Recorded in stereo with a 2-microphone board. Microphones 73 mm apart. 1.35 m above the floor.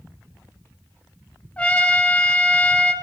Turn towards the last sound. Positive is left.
turn(degrees=15)  # may be behind; listen again after turning